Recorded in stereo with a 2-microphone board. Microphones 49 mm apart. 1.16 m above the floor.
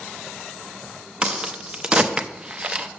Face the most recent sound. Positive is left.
turn(degrees=-20)  # may be behind; listen again after turning